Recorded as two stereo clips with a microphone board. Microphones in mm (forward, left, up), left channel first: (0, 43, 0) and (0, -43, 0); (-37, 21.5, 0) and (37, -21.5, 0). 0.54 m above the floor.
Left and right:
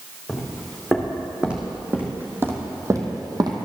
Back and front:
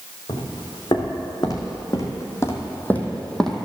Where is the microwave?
I don't hear a microwave.